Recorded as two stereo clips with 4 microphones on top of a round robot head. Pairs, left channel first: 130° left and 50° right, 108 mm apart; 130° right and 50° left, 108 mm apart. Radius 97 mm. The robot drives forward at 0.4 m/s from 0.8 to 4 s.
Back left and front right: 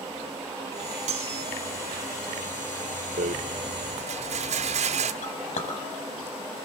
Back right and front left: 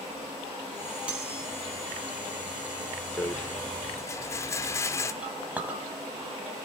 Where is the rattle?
55° right, 1.7 m; by 5.1 s 65° right, 1.6 m.